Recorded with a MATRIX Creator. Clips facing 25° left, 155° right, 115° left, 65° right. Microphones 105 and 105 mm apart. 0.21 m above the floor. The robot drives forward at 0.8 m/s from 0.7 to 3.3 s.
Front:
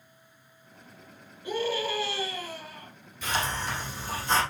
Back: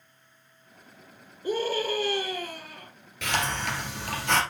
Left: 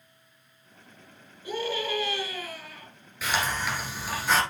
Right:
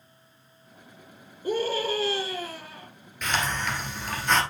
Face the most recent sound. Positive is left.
turn(degrees=-160)